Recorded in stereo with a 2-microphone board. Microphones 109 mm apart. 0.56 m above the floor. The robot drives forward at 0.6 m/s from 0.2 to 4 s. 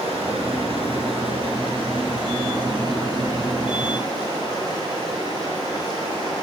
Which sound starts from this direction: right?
Running water, at 0.0 s.